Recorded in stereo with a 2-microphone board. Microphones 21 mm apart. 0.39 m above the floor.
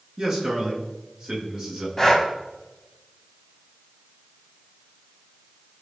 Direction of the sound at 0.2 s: 15° right (ahead or behind).